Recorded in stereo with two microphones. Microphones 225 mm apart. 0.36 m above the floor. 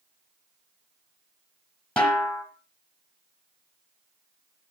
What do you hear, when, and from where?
2.0 s a snare drum: 5° left (ahead or behind), 2.5 m